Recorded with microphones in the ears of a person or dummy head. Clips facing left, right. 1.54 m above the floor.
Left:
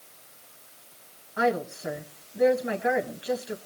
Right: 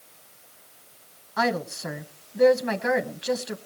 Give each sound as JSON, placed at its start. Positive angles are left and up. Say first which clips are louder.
{"t": 1.4, "sound": "a woman speaking", "louder": "left 1 dB", "side_deg": -65, "distance_m": 1.1}